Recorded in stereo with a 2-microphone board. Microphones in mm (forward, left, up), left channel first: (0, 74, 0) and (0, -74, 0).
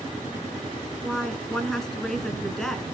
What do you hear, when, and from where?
1.0 s a woman speaking: 5° left (ahead or behind), 1.9 m